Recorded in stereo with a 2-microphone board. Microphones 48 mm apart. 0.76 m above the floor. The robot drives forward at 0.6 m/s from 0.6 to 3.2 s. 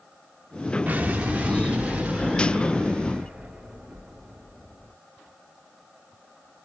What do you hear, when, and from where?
0.9 s an explosion: 30° right (ahead or behind), 1.1 m; by 4.9 s 15° right (ahead or behind), 2.5 m